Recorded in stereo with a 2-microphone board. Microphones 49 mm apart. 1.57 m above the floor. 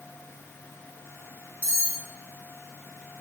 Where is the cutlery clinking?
25° left (ahead or behind), 4.5 m.